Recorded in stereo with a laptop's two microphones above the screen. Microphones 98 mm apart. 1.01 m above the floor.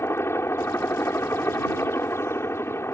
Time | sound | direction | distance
0.0 | a helicopter | 25° left (ahead or behind) | ?